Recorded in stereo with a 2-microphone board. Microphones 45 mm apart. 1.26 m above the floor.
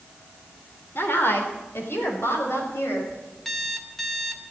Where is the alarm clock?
5° left (ahead or behind), 1.7 m.